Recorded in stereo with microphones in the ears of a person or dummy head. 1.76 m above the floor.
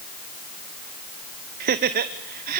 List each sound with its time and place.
1.6 s laughter: 45° right (ahead or behind), 1.0 m